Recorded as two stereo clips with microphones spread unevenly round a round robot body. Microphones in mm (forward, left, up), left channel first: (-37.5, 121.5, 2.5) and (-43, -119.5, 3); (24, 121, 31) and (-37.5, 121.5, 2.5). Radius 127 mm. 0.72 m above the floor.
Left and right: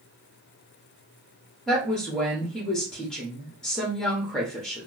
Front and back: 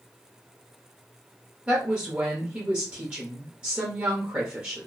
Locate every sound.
1.7 s a woman speaking: 175° left, 0.9 m